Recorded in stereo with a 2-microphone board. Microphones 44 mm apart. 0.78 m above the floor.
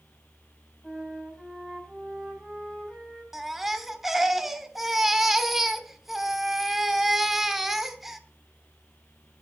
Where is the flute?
10° left (ahead or behind), 4 m.